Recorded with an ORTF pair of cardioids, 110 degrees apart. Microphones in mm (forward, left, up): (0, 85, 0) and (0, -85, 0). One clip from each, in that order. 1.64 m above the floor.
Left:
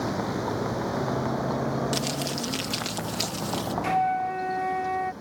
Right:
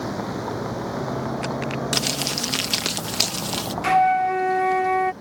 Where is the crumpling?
40° right.